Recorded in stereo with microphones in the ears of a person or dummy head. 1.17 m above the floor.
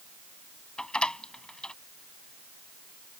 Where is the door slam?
5° left (ahead or behind).